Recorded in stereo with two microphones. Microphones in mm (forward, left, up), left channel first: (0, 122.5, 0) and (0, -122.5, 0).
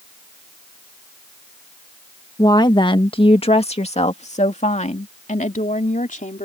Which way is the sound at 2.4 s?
15° left (ahead or behind).